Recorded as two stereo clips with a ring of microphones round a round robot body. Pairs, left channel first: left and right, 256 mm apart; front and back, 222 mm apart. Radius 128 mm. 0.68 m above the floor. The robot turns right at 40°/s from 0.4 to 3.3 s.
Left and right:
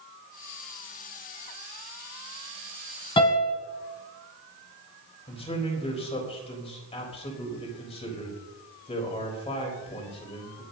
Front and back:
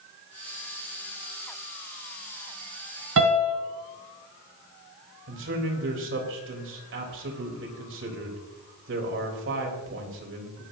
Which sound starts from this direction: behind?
A piano, at 3.2 s.